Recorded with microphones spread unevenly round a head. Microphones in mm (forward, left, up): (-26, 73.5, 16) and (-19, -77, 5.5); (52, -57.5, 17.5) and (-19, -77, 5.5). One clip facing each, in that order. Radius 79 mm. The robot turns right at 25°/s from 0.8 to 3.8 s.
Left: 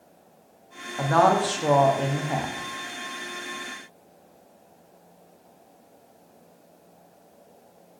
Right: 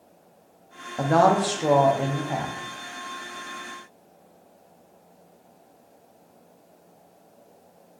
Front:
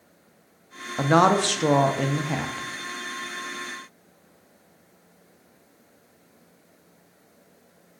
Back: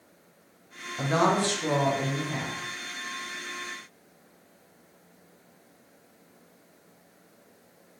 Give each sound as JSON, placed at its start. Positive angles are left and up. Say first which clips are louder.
{"t": 1.0, "sound": "a woman speaking", "louder": "right 1 dB, front 5 dB", "azimuth_deg": -25, "distance_m": 0.5}